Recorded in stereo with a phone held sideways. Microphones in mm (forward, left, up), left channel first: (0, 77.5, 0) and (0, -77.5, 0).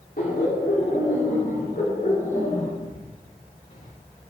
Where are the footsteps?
55° left (ahead or behind), 9 m; by 4.0 s 45° left (ahead or behind), 10 m.